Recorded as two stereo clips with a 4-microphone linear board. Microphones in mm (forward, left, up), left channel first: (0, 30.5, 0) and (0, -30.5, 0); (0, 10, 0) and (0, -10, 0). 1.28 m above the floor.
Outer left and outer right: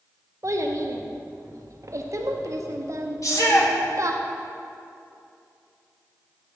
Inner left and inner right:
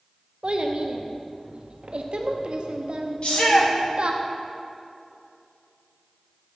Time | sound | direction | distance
0.4 | a child speaking | 55° right (ahead or behind) | 0.5 m
3.2 | a shout | 55° left (ahead or behind) | 1.1 m